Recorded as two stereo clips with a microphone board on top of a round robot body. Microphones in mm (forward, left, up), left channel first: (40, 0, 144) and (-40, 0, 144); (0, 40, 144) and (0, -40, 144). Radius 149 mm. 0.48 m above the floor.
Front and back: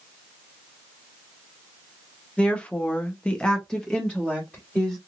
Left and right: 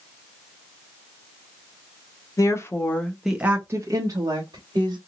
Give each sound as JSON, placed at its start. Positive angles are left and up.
{"t": 2.4, "sound": "a woman speaking", "azimuth_deg": 70, "distance_m": 1.3}